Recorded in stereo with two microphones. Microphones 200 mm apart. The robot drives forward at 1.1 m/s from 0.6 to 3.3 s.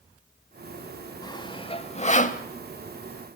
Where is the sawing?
20° left (ahead or behind), 1.6 m; by 2.4 s 40° left (ahead or behind), 0.9 m.